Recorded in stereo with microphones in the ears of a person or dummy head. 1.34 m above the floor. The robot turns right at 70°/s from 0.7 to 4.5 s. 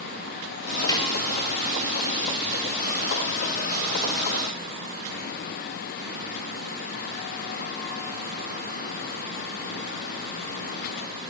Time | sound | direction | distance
0.9 | a snare drum | 20° left (ahead or behind) | 1.5 m